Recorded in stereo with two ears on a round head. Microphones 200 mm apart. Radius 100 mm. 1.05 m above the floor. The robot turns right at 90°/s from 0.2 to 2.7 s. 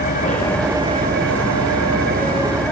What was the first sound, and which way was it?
An engine running, 145° left.